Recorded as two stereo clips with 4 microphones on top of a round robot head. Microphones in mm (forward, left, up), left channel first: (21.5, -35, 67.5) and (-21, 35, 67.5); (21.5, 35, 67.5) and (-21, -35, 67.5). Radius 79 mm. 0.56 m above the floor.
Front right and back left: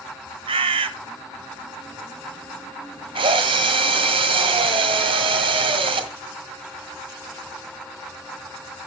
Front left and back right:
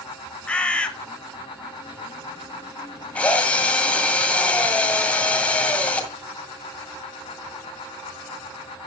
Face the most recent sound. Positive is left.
turn(degrees=135)